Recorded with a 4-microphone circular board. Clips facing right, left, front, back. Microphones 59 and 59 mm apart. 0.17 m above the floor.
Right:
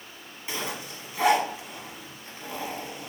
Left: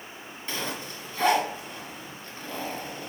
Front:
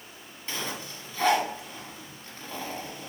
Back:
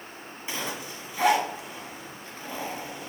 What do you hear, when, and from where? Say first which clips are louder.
0.5 s a zipper: even, back 1 dB; 135° right, 1.3 m